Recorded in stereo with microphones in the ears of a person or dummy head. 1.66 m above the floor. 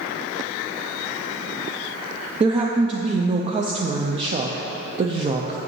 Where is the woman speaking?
35° right (ahead or behind), 0.5 m.